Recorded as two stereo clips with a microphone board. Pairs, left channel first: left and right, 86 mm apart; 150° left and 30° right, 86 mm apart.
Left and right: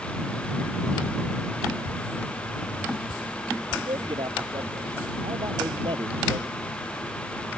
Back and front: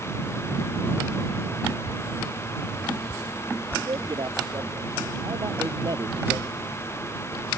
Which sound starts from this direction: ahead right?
A man speaking, at 3.8 s.